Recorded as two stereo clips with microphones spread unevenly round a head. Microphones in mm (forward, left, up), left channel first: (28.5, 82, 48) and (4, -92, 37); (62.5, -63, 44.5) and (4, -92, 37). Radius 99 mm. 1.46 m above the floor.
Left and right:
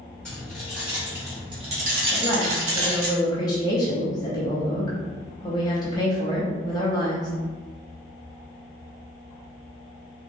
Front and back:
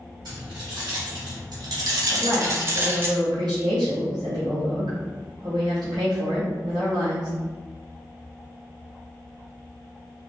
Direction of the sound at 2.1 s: 150° left.